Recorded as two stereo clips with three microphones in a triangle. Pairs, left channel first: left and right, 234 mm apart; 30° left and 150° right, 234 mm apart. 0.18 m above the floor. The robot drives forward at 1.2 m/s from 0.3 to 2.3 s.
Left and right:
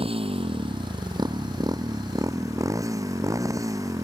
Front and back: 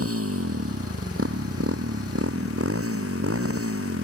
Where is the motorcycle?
155° right; by 4.0 s 165° right.